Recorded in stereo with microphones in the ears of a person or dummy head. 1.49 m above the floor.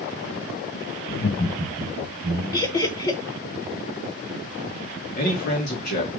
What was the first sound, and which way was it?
Laughter, 70° left (ahead or behind).